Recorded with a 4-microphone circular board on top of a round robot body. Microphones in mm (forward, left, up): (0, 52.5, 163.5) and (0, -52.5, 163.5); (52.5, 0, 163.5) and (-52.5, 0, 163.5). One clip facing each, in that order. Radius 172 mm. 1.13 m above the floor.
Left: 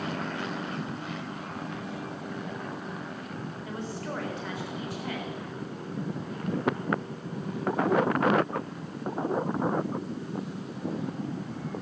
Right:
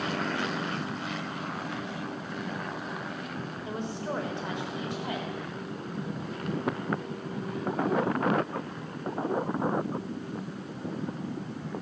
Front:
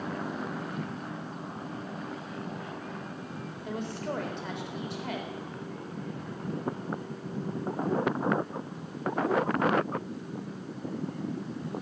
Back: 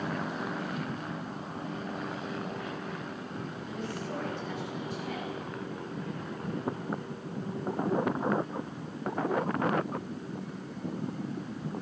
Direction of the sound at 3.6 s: 20° right.